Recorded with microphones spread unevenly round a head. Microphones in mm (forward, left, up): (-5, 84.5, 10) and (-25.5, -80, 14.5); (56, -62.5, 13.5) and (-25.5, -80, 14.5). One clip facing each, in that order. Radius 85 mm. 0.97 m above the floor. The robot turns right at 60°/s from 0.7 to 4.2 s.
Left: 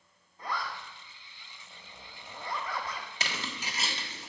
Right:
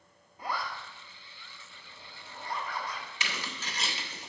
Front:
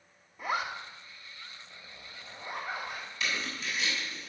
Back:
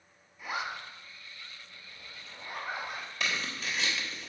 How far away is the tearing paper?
About 1.1 m.